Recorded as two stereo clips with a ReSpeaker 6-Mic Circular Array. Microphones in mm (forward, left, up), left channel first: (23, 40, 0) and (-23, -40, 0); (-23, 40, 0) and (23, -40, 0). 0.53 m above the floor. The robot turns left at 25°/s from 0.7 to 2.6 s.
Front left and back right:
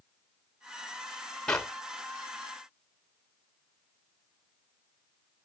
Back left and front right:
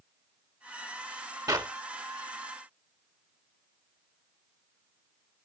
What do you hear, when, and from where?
1.5 s a clap: 20° right, 1.7 m; by 1.7 s 25° right, 1.7 m